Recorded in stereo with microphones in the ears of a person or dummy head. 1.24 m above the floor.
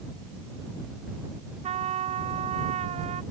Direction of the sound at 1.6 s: 35° right (ahead or behind).